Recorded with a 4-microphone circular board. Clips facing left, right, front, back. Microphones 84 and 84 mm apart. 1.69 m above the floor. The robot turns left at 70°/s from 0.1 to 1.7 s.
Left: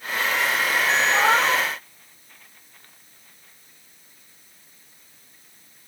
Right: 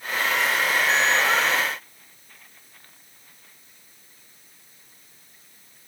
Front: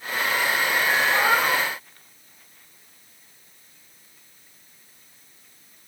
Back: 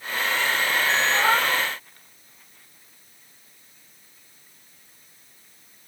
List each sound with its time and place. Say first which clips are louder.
1.1 s a cat meowing: left 3 dB, even; 100° left, 2.5 m; by 1.6 s 65° left, 2.5 m